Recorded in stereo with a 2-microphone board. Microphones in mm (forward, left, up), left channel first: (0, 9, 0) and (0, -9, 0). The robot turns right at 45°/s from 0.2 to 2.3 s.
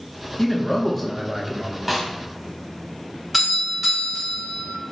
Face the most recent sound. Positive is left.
turn(degrees=0)  # may be behind; listen again after turning